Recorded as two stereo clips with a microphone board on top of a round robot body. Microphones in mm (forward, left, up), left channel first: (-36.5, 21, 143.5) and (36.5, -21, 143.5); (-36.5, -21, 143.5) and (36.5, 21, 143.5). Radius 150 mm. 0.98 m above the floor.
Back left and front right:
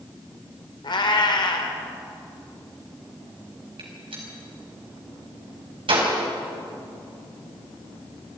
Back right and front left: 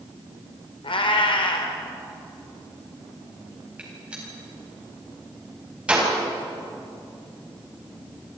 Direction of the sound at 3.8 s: 45° right.